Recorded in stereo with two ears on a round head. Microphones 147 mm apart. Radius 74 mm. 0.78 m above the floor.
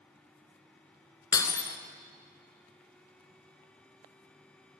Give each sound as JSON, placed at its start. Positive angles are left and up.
{"t": 1.3, "sound": "breaking glass", "side_deg": 25, "distance_m": 1.0}